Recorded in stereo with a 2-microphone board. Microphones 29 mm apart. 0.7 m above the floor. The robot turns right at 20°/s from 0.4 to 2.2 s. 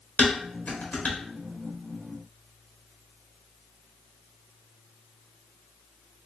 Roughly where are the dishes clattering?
Left.